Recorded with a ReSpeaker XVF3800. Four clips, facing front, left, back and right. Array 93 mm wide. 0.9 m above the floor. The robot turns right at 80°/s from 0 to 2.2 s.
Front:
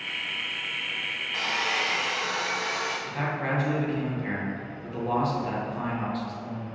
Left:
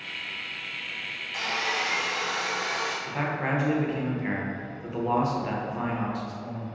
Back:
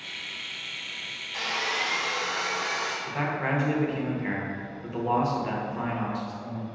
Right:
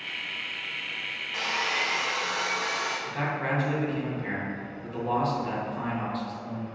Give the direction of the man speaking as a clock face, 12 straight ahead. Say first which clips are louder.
Left 2 dB, back 3 dB; 8 o'clock.